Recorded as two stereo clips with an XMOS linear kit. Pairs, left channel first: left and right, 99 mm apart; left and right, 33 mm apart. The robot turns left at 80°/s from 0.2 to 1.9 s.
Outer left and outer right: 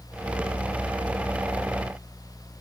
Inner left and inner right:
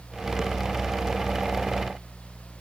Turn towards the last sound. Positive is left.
No sound to turn to.